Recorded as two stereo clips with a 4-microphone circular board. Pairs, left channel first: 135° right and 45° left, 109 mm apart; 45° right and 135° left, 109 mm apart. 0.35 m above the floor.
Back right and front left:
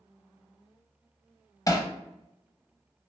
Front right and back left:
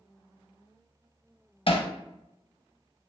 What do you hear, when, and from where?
1.7 s hammering: 80° right, 0.5 m